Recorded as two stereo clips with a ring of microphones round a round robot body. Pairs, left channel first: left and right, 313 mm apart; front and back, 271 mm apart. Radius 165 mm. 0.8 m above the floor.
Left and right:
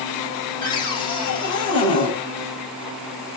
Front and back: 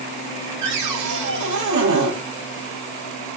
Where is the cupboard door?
165° left, 7 m.